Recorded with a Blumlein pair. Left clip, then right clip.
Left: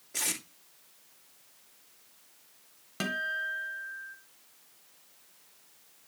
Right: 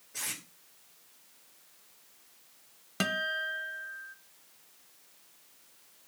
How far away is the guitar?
About 1.0 m.